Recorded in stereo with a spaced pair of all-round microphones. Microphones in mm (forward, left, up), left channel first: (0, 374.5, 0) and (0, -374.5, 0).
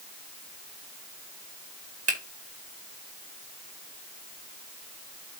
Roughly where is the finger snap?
Right.